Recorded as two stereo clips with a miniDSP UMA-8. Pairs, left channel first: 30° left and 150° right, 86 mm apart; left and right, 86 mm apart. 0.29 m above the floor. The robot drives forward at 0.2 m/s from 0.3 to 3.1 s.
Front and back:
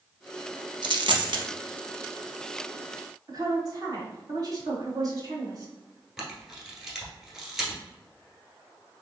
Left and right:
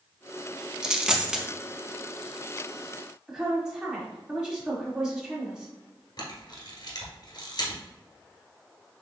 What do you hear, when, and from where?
0.8 s a dropped coin: 170° right, 0.5 m; by 1.4 s 175° right, 0.6 m
3.3 s a woman speaking: 170° right, 1.5 m
6.2 s a camera shutter: 125° left, 1.3 m